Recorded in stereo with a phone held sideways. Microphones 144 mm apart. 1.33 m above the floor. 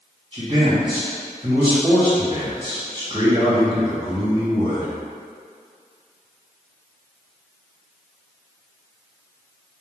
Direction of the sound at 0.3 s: 35° right (ahead or behind).